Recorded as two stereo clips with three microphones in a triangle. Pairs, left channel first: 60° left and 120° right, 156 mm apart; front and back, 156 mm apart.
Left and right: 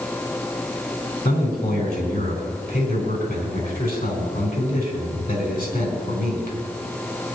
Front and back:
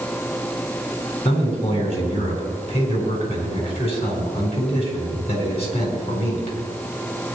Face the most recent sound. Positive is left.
turn(degrees=50)